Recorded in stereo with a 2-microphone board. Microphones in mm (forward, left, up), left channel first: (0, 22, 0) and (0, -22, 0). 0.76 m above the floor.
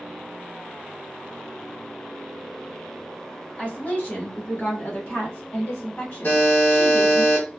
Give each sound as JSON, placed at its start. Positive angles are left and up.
{"t": 3.6, "sound": "a woman speaking", "side_deg": 30, "distance_m": 1.0}
{"t": 6.2, "sound": "a buzzer", "side_deg": 55, "distance_m": 1.2}